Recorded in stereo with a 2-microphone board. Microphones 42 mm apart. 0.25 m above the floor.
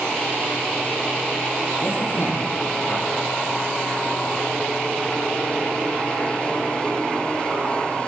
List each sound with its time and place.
1.8 s a man speaking: 60° left (ahead or behind), 9 m